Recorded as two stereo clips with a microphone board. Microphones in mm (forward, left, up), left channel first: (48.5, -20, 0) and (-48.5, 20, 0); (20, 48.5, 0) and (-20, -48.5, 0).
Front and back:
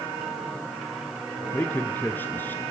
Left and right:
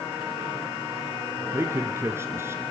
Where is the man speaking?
75° right, 1.5 m.